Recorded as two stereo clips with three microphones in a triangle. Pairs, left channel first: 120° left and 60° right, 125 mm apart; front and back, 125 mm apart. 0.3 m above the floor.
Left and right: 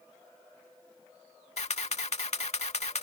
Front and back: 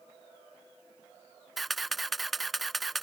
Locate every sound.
1.6 s a camera shutter: 90° left